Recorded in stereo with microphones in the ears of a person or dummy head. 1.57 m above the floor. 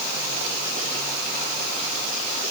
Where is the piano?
No piano in this recording.